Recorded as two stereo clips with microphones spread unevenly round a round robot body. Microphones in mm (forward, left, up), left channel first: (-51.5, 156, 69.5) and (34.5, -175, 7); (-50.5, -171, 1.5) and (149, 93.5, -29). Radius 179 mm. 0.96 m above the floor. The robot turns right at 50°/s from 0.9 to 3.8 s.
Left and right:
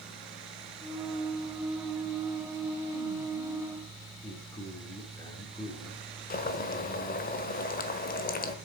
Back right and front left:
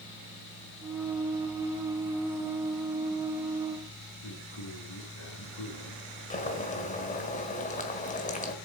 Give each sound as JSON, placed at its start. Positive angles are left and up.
{"t": 4.2, "sound": "a man speaking", "azimuth_deg": -175, "distance_m": 2.5}
{"t": 6.3, "sound": "boiling", "azimuth_deg": 165, "distance_m": 1.4}